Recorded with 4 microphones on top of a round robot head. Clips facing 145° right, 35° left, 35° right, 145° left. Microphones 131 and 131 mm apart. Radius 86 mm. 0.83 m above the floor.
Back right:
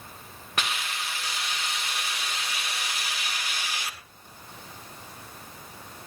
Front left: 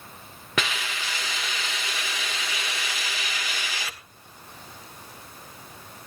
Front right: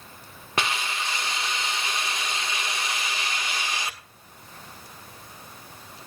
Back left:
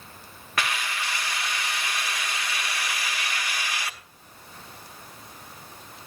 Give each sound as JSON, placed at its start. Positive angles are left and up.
{"t": 0.6, "sound": "a hiss", "azimuth_deg": 35, "distance_m": 1.5}